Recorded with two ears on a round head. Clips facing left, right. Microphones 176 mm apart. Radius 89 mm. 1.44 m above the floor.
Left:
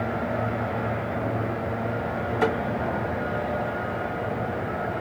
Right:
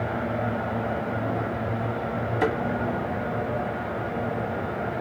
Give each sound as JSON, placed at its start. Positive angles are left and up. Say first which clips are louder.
{"t": 2.4, "sound": "a thud", "louder": "left 1 dB", "side_deg": -10, "distance_m": 2.0}